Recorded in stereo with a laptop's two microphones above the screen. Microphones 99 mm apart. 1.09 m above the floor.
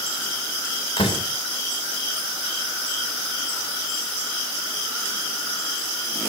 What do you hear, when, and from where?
1.0 s a door slam: 55° left (ahead or behind), 3.5 m